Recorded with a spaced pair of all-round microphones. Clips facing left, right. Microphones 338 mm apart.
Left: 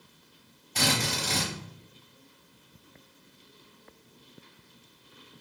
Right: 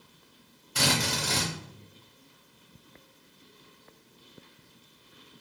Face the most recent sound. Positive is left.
turn(degrees=-15)  # may be behind; listen again after turning